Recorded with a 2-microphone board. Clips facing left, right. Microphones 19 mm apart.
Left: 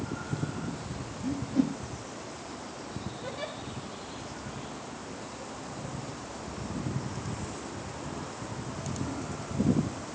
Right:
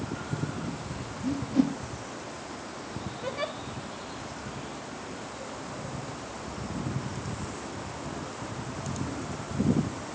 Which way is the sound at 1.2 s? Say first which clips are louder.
Right 2 dB; 25° right (ahead or behind).